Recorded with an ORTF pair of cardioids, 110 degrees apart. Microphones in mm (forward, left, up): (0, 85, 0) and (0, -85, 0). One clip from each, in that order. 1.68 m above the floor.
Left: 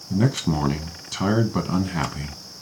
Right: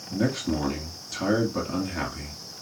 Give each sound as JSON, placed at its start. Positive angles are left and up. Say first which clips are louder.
{"t": 0.1, "sound": "a man speaking", "louder": "left 3 dB", "azimuth_deg": 50, "distance_m": 1.0}